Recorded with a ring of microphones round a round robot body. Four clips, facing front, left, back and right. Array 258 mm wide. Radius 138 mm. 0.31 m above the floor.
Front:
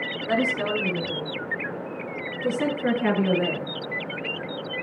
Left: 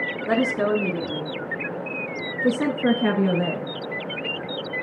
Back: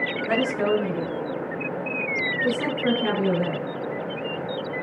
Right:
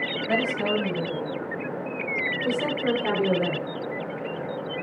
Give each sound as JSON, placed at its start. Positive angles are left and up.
{"t": 0.3, "sound": "a woman speaking", "azimuth_deg": 95, "distance_m": 4.5}